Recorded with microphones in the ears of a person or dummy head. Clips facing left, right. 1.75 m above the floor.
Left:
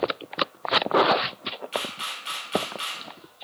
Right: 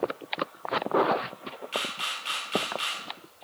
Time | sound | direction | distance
1.7 | a camera shutter | 5° right (ahead or behind) | 2.5 m